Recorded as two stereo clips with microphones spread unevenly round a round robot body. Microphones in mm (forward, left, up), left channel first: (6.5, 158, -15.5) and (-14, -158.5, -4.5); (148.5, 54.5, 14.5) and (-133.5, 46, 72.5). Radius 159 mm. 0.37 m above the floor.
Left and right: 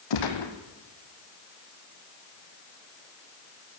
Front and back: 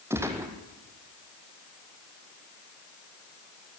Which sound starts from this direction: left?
A gunshot, at 0.1 s.